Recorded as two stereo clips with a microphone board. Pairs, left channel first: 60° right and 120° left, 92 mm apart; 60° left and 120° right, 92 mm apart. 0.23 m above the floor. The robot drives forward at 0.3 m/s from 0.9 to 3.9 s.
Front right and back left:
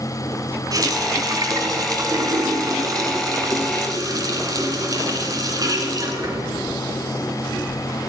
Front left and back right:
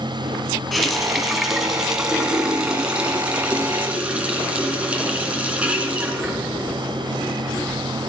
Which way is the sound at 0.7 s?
150° left.